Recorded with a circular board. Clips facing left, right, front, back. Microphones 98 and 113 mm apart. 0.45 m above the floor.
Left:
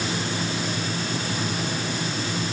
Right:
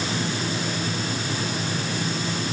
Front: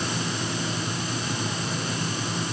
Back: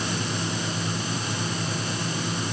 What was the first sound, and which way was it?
Only background noise.